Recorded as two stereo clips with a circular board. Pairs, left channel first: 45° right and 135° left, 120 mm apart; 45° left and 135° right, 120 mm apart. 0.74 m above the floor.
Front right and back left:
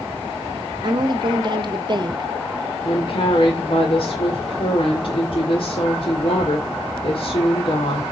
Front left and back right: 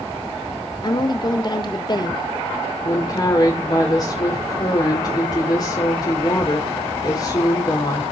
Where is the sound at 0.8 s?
90° left, 1.3 m.